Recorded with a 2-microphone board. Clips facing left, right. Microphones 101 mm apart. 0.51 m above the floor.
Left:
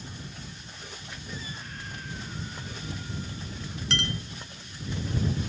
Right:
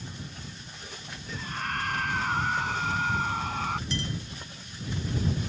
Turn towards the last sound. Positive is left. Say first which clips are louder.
# left 1 dB
turn(degrees=75)  # may be behind; listen again after turning